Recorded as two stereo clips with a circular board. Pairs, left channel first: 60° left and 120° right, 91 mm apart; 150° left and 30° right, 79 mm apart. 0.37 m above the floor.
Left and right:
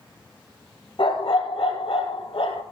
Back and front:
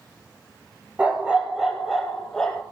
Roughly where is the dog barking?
Ahead left.